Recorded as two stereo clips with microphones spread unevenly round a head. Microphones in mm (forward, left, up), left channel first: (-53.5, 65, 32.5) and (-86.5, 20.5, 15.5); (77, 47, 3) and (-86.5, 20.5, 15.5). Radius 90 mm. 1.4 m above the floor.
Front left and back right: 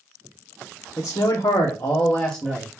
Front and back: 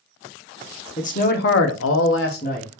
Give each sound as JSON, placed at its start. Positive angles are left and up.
{"t": 1.0, "sound": "a man speaking", "azimuth_deg": 55, "distance_m": 0.9}